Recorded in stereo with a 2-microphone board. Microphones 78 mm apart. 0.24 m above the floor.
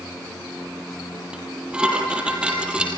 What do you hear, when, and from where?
1.3 s dishes clattering: 15° right (ahead or behind), 4.5 m